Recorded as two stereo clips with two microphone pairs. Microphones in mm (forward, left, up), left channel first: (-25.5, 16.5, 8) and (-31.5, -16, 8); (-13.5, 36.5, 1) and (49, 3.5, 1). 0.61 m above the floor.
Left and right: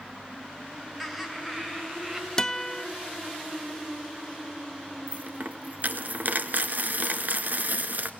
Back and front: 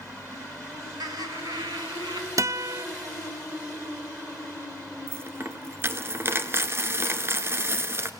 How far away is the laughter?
About 2.5 m.